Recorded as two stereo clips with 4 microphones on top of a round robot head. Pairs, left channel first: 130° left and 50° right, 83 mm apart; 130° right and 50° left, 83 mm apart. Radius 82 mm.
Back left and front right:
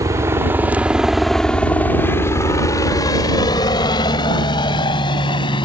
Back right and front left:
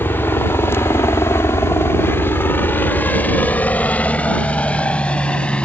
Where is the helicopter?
75° right; by 5.7 s 155° left.